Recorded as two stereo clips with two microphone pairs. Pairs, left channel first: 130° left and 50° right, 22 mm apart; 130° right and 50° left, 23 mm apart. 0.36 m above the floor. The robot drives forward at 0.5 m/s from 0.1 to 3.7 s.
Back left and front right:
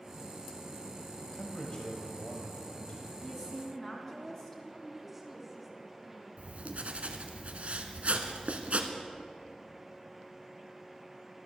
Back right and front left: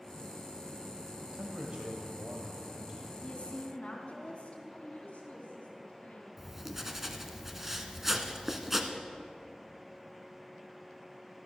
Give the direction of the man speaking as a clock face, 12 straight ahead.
10 o'clock.